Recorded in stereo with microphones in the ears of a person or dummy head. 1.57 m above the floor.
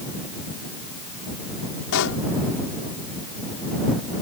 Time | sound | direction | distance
1.9 | a pop | 65° left (ahead or behind) | ?